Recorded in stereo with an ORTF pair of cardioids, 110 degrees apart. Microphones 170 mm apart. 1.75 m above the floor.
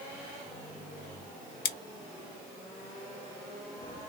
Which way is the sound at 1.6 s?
65° left.